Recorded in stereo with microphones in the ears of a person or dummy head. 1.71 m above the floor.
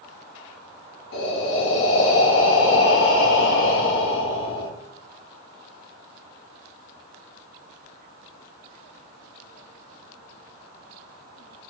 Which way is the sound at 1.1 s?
60° left (ahead or behind).